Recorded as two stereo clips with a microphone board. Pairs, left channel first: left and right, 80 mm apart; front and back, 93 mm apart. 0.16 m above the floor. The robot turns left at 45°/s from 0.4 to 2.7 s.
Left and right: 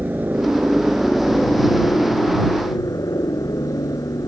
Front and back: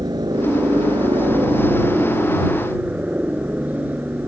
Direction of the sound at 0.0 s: 150° right.